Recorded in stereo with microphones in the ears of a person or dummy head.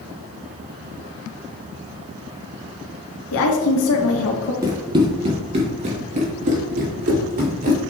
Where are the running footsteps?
20° right (ahead or behind), 1.6 m; by 7.8 s 50° right (ahead or behind), 3 m.